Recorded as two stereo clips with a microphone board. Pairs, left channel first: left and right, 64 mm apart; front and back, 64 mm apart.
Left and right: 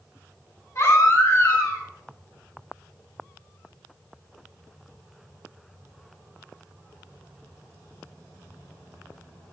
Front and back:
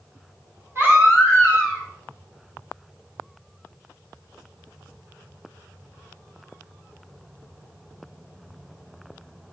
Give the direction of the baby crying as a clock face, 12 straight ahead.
8 o'clock.